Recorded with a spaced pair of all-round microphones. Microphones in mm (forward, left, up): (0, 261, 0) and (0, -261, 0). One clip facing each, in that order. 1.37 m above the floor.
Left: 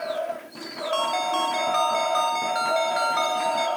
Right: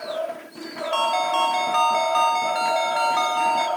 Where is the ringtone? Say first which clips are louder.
Right 1 dB; 20° right (ahead or behind), 2.5 m.